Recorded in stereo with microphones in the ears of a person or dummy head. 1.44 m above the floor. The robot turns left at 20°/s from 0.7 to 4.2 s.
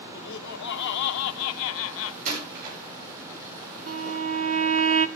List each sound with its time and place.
0.1 s laughter: 65° left (ahead or behind), 0.7 m; by 2.1 s 85° left, 0.7 m
2.2 s a door slam: 45° right (ahead or behind), 7 m; by 2.8 s 55° right (ahead or behind), 7 m
3.9 s a violin: 50° right (ahead or behind), 0.7 m; by 5.1 s 45° right (ahead or behind), 0.7 m